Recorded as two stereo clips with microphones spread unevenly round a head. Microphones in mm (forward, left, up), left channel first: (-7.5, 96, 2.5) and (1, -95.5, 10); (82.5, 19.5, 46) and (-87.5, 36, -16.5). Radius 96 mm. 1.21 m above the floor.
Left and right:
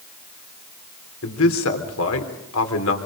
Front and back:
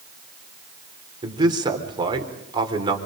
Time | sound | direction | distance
1.2 | a man speaking | 110° left | 3.5 m